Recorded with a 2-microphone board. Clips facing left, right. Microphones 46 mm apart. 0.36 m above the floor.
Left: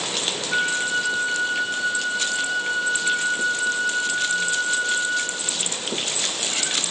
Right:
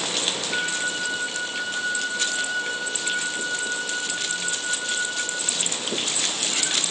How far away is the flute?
About 2 m.